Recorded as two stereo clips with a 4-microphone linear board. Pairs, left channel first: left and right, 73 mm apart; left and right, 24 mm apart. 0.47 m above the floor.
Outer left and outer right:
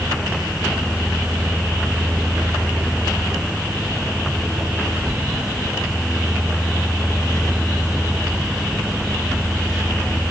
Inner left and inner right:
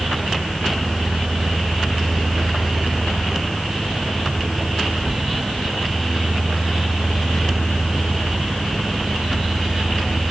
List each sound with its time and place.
Only background noise.